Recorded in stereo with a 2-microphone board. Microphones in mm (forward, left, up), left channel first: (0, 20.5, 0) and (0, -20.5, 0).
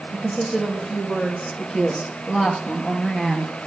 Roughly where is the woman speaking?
Centre.